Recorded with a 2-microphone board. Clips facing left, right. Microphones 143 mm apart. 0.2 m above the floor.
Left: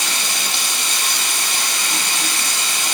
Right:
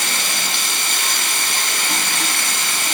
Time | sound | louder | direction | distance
0.0 | running water | right 1 dB | 60° right (ahead or behind) | 2.5 m